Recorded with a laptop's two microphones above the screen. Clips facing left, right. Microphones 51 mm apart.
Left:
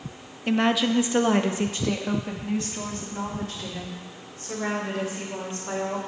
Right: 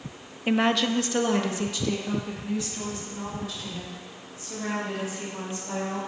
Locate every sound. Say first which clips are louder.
0.5 s a woman speaking: left 1 dB; 10° right (ahead or behind), 0.6 m; by 6.0 s 55° left (ahead or behind), 4 m